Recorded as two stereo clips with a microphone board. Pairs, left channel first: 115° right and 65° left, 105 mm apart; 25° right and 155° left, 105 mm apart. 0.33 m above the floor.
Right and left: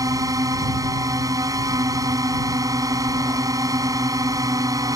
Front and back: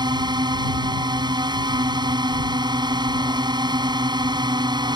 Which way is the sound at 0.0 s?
120° left.